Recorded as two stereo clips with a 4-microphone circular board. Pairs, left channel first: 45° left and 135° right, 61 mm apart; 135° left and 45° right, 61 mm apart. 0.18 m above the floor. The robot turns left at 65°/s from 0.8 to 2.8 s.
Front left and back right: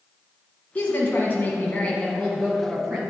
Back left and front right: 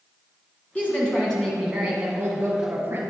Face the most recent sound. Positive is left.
turn(degrees=-40)